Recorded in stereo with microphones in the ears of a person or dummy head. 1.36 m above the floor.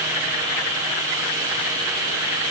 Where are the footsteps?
I don't hear footsteps.